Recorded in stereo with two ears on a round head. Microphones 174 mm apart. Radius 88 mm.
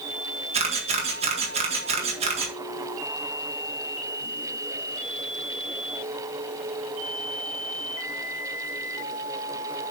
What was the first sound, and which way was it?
A camera shutter, 35° right (ahead or behind).